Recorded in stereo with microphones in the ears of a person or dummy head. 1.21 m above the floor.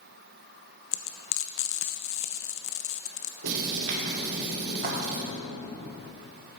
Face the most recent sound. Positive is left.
turn(degrees=-50)  # may be behind; listen again after turning